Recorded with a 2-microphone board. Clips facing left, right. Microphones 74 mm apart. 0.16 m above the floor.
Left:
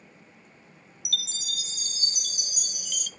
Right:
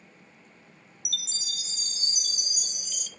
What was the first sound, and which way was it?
A chime, 55° left (ahead or behind).